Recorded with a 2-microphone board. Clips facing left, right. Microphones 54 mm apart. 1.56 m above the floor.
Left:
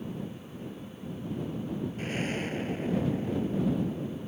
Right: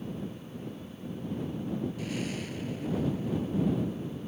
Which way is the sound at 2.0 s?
40° left (ahead or behind).